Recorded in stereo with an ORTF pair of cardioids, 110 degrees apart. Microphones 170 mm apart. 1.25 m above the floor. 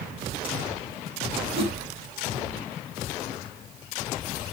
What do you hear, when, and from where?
1.6 s a whoosh: 35° right, 4.5 m